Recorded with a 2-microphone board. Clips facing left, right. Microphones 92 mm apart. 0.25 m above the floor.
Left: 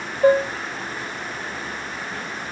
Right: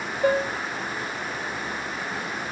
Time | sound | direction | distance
0.2 | dishes clattering | 25° left (ahead or behind) | 1.1 m